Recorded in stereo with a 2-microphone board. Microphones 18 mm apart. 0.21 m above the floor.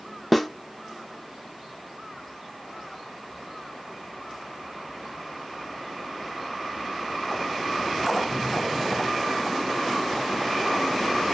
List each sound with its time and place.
0.3 s a snare drum: 5° left (ahead or behind), 0.6 m